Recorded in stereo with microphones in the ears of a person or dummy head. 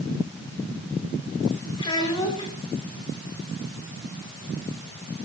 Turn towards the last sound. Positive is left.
turn(degrees=35)  # may be behind; listen again after turning